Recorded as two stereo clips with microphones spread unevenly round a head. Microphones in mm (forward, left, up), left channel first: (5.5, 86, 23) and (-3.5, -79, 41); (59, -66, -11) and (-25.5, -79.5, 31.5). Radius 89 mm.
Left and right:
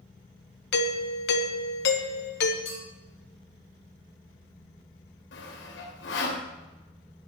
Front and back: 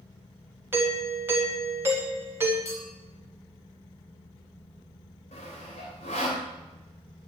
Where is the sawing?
65° left, 3 m.